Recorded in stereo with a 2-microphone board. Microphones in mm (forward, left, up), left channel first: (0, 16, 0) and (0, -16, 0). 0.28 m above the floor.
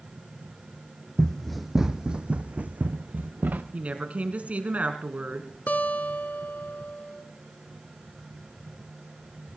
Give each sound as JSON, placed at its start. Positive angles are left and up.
{"t": 1.2, "sound": "running footsteps", "side_deg": 20, "distance_m": 1.0}
{"t": 3.7, "sound": "a woman speaking", "side_deg": -50, "distance_m": 2.5}
{"t": 5.7, "sound": "a guitar", "side_deg": 70, "distance_m": 1.3}